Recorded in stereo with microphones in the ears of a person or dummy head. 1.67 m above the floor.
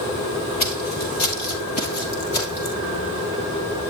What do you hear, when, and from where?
0.6 s footsteps: 45° left (ahead or behind), 2.5 m